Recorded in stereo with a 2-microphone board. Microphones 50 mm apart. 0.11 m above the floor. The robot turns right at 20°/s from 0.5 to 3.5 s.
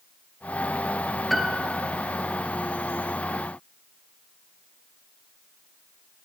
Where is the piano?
Centre (ahead or behind), 1.0 m; by 1.9 s 10° right (ahead or behind), 1.0 m.